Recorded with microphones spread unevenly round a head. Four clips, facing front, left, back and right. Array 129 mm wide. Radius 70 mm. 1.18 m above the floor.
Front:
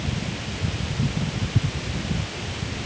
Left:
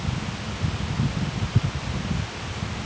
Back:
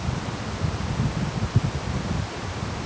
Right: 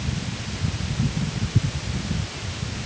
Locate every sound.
Only background noise.